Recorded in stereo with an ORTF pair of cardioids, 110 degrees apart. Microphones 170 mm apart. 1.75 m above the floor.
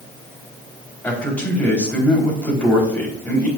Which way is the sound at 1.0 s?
10° left.